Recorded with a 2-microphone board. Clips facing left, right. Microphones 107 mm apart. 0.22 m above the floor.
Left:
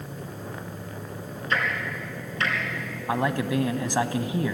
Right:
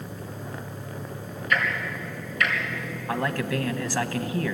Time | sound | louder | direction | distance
1.5 | ticking | right 1 dB | 30° left (ahead or behind) | 3 m
3.1 | a man speaking | left 2 dB | 20° left (ahead or behind) | 1.2 m